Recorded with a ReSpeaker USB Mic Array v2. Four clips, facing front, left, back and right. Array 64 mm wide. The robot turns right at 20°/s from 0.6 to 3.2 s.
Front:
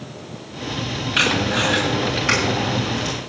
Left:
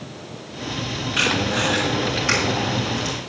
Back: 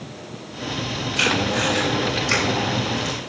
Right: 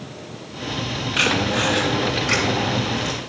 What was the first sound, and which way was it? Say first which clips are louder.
Tape being pulled: right 1 dB, front 2 dB; 5° right.